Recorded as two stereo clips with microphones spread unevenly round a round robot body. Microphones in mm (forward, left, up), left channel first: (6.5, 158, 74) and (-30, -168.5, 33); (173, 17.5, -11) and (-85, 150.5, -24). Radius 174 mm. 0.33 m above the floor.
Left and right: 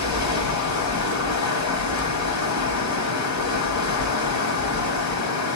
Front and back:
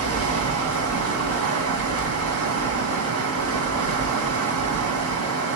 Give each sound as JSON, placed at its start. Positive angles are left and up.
{"t": 0.0, "sound": "running water", "azimuth_deg": 120, "distance_m": 2.0}